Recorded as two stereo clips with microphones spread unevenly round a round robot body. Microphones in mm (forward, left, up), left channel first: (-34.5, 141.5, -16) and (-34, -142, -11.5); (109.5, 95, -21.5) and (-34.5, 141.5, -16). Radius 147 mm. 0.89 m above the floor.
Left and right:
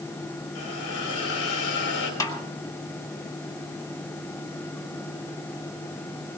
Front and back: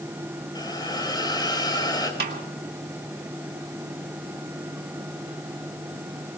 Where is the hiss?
45° left, 4.5 m.